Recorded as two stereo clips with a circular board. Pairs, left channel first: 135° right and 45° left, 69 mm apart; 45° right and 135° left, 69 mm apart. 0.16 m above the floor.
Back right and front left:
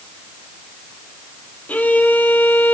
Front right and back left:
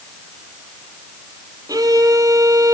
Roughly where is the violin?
Behind.